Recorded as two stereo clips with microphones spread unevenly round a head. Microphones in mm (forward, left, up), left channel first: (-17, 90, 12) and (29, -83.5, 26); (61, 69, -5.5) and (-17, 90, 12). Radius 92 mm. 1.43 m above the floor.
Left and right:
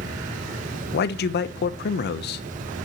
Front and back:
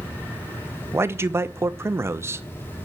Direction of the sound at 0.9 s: 100° left.